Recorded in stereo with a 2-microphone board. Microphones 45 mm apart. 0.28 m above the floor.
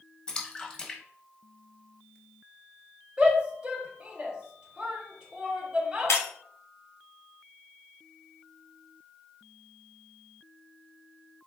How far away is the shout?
About 0.9 m.